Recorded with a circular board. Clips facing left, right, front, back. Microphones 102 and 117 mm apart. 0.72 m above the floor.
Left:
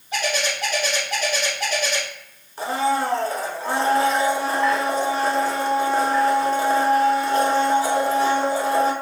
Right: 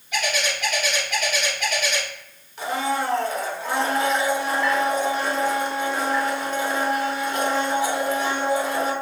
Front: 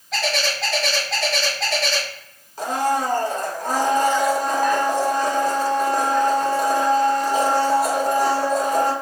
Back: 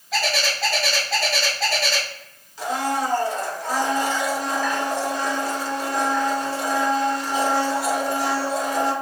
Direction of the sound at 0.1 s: 90° left.